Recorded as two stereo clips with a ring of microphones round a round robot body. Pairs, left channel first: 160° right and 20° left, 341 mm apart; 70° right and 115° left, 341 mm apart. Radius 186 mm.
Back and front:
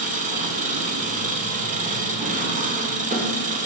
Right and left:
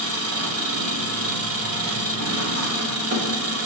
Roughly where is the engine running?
Left.